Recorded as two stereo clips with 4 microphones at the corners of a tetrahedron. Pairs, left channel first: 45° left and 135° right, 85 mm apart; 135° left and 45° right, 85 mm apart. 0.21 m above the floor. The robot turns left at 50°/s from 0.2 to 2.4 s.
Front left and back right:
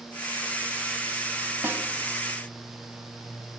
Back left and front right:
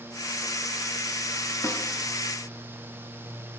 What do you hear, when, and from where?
1.6 s a snare drum: 175° left, 0.7 m; by 1.8 s 165° left, 0.7 m